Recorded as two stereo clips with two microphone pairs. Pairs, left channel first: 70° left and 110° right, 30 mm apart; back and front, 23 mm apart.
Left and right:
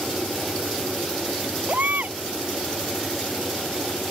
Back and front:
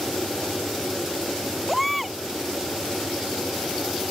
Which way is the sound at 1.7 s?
90° right.